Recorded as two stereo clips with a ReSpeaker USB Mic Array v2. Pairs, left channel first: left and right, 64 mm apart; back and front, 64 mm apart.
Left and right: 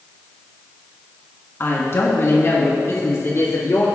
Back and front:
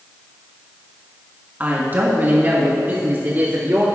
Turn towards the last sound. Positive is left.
turn(degrees=55)